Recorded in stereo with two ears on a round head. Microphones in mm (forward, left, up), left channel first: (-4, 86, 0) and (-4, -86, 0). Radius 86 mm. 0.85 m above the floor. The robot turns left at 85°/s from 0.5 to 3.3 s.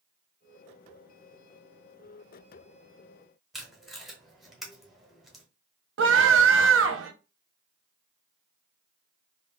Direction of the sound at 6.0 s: 70° right (ahead or behind).